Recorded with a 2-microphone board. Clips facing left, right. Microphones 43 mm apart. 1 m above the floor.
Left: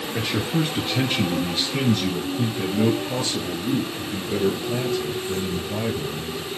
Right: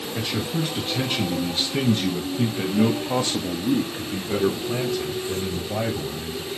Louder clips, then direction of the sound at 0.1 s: Left 3 dB; 20° left (ahead or behind).